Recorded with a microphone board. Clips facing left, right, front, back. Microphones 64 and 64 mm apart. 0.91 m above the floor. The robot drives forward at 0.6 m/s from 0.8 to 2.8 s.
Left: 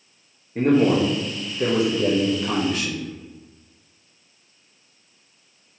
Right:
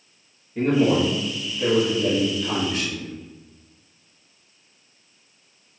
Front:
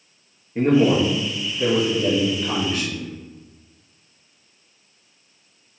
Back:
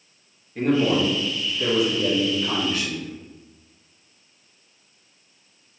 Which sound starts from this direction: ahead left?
A man speaking, at 0.6 s.